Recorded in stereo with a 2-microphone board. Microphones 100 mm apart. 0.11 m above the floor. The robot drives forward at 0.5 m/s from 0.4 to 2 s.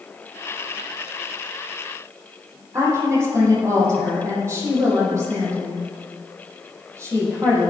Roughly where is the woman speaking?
Right.